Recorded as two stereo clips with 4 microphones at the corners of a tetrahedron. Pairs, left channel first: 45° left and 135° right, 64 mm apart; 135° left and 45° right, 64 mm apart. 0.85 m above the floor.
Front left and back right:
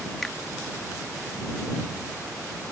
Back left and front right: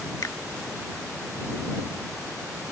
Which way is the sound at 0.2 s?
125° left.